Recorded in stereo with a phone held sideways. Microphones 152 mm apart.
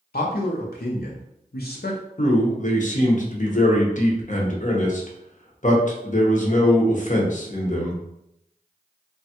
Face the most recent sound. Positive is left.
turn(degrees=55)  # may be behind; listen again after turning